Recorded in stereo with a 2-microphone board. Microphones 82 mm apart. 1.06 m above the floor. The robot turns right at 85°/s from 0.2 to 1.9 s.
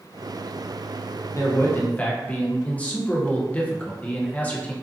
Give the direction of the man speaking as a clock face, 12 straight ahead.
8 o'clock.